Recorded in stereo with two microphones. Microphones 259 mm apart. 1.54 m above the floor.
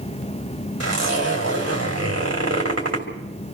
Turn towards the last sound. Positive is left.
turn(degrees=-75)  # may be behind; listen again after turning